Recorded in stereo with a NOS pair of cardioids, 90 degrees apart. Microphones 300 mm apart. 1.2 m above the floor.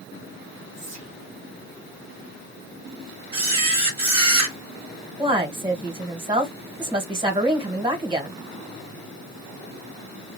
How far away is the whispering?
About 1.1 m.